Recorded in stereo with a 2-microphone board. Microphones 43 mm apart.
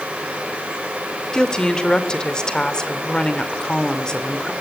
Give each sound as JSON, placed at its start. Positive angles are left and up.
{"t": 1.3, "sound": "a woman speaking", "side_deg": 20, "distance_m": 2.5}